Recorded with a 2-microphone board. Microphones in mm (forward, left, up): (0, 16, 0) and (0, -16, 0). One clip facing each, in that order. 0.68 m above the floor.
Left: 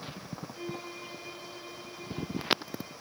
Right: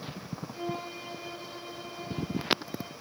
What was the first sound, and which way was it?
A violin, 50° right (ahead or behind).